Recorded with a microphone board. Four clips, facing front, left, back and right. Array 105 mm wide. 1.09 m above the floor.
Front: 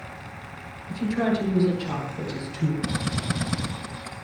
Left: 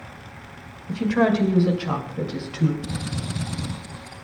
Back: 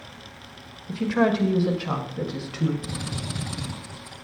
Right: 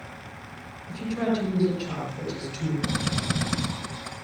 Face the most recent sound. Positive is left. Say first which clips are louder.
# right 3 dB, front 5 dB
turn(degrees=-55)